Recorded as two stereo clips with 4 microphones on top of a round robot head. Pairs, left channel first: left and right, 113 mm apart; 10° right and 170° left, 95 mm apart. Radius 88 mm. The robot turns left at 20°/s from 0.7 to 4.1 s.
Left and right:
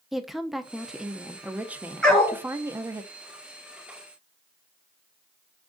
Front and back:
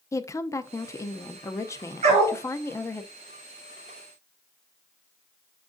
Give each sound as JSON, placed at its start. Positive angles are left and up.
{"t": 0.1, "sound": "a woman speaking", "azimuth_deg": -5, "distance_m": 0.6}
{"t": 2.0, "sound": "a dog barking", "azimuth_deg": 175, "distance_m": 2.5}